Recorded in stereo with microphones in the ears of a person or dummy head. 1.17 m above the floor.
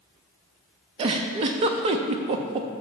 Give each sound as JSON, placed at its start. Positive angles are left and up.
{"t": 1.0, "sound": "a giggle", "side_deg": -35, "distance_m": 0.6}